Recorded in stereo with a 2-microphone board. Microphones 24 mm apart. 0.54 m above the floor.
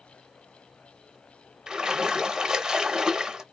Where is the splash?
30° right (ahead or behind), 0.7 m.